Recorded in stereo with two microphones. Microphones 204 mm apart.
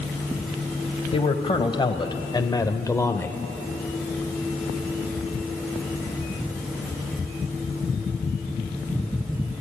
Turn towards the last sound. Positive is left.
turn(degrees=10)  # may be behind; listen again after turning